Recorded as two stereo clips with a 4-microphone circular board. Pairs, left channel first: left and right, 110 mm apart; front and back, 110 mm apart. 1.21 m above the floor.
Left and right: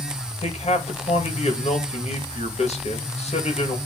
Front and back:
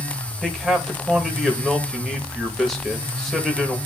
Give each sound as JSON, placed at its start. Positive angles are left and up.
{"t": 0.4, "sound": "a man speaking", "azimuth_deg": 90, "distance_m": 2.0}